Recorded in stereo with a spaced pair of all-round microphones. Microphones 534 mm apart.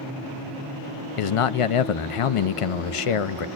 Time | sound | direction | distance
1.2 | a man speaking | 70° left (ahead or behind) | 0.5 m